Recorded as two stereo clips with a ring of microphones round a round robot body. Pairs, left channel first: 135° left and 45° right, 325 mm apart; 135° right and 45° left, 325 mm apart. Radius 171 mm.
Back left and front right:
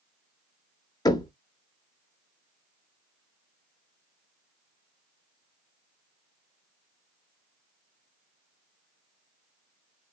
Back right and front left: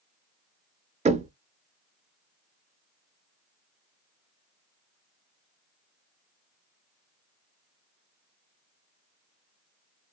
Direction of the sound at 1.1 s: 75° left.